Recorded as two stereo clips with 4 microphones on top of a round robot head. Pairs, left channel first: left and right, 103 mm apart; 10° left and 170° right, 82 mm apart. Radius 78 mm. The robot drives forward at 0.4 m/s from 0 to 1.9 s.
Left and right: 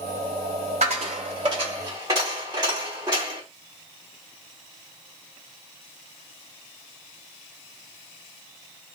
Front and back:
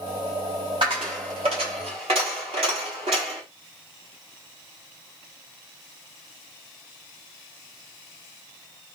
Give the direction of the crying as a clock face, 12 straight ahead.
I don't hear crying.